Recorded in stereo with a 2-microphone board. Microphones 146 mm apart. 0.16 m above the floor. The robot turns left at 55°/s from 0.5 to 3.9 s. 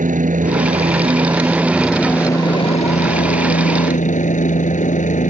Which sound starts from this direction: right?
A helicopter, at 0.0 s.